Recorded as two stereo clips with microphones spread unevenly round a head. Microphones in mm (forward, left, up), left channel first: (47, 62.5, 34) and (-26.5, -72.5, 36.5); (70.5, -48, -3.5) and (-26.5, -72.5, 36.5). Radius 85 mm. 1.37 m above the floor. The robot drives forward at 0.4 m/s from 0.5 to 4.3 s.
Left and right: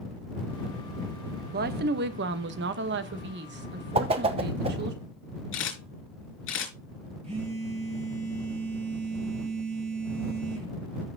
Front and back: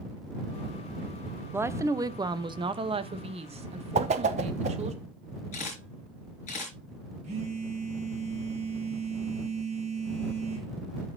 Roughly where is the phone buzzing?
Behind.